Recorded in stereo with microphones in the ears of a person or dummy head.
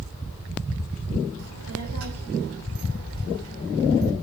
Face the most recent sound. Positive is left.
turn(degrees=-80)